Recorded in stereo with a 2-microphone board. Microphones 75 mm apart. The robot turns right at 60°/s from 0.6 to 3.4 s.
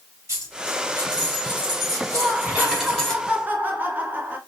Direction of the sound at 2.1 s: 5° left (ahead or behind).